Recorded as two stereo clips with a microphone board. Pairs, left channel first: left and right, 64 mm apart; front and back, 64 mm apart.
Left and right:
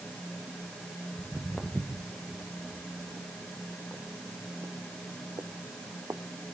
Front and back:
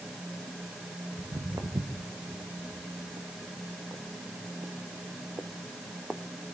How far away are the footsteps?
About 3 m.